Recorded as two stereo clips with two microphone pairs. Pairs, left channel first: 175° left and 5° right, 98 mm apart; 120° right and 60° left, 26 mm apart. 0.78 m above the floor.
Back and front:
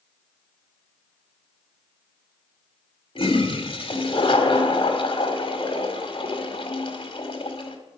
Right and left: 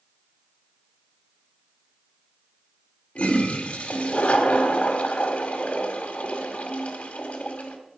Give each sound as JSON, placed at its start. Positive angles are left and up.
{"t": 3.1, "sound": "a toilet flushing", "azimuth_deg": -150, "distance_m": 1.7}